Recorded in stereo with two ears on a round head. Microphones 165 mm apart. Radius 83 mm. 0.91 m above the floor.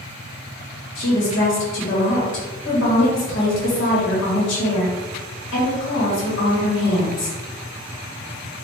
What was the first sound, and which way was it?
A woman speaking, 65° left (ahead or behind).